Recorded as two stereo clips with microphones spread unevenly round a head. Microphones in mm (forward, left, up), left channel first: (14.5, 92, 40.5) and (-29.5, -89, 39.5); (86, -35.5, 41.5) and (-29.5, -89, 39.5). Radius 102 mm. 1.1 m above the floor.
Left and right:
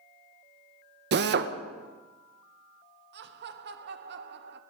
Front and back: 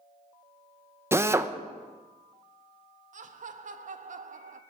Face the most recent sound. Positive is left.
turn(degrees=-135)